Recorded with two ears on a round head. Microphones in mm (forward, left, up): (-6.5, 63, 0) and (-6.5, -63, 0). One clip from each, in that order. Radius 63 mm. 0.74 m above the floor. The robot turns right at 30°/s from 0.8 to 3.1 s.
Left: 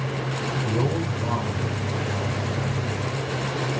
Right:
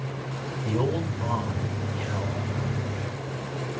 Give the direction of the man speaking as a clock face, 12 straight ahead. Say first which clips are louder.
Right 2 dB; 3 o'clock.